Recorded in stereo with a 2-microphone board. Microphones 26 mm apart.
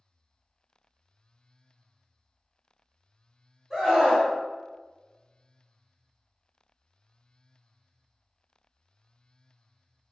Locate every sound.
3.7 s a scream: 10° right (ahead or behind), 1.4 m